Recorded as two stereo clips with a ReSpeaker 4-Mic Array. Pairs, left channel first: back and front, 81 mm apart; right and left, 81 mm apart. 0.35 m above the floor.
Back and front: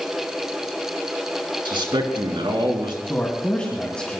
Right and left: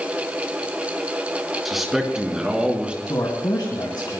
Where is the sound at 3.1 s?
105° right, 2.5 m.